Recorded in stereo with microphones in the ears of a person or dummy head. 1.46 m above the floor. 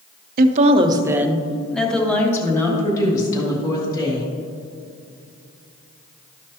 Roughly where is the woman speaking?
Right.